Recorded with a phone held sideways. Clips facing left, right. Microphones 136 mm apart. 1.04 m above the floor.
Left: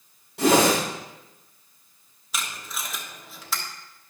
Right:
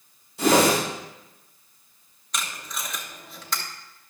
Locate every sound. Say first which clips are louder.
0.4 s a whoosh: even; 75° left (ahead or behind), 4.5 m
2.3 s tape being pulled: even; 5° left (ahead or behind), 1.1 m